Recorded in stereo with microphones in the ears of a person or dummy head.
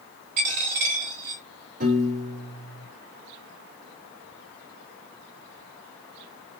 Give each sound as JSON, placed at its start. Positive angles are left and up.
{"t": 0.4, "sound": "a dropped coin", "side_deg": -35, "distance_m": 1.4}
{"t": 1.8, "sound": "a piano", "side_deg": -30, "distance_m": 1.4}